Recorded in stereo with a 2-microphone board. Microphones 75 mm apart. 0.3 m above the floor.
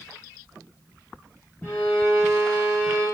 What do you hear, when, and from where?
1.6 s a violin: 40° left (ahead or behind), 1.7 m